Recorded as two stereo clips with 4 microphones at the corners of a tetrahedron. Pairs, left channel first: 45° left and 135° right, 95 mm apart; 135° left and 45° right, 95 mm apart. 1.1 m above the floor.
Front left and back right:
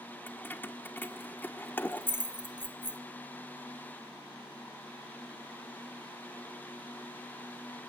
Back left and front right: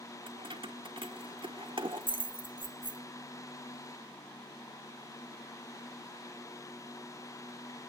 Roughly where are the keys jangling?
Ahead right.